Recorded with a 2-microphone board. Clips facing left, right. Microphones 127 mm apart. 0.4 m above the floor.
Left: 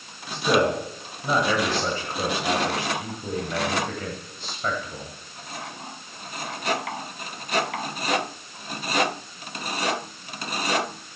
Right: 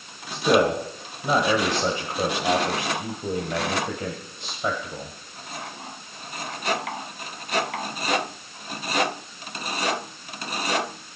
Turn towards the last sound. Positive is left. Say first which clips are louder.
# right 2 dB
turn(degrees=-20)  # may be behind; listen again after turning